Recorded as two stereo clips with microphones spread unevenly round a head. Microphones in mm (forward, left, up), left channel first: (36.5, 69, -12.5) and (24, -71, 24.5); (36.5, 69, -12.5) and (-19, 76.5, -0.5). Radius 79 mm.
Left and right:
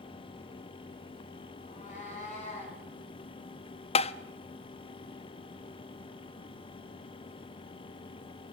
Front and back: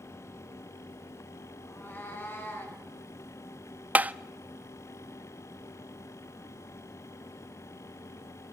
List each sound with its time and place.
1.6 s a cat meowing: 50° left, 6.5 m; by 2.8 s 40° left, 7 m
4.0 s tapping: 105° left, 0.6 m